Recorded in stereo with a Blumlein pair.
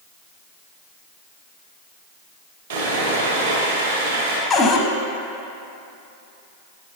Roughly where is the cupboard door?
Ahead.